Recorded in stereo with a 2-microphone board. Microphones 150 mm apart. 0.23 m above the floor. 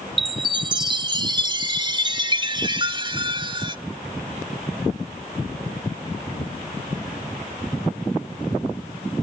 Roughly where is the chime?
Right.